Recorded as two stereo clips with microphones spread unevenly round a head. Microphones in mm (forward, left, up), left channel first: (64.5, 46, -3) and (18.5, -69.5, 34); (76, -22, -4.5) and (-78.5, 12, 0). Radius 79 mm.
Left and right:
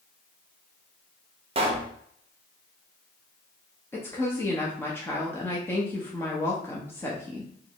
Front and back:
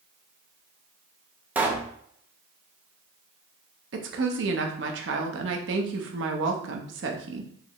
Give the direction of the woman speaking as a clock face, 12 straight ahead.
7 o'clock.